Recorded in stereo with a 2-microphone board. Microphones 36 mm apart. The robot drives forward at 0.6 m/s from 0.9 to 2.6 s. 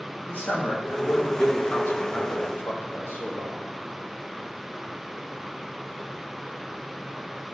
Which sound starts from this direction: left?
A man speaking, at 0.3 s.